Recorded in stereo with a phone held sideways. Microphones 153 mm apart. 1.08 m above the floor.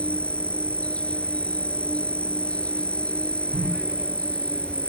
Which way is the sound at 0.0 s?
10° left (ahead or behind).